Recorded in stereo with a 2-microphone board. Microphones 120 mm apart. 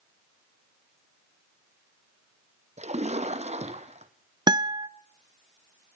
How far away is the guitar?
About 0.6 m.